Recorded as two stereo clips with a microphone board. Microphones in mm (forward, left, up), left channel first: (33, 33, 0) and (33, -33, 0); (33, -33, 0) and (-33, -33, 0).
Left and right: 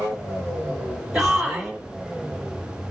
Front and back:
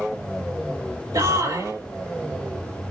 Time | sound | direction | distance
1.1 | a shout | 170° right | 3.5 m